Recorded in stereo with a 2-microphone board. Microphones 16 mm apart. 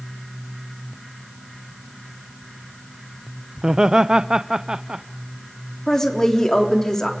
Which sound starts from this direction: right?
Laughter, at 3.6 s.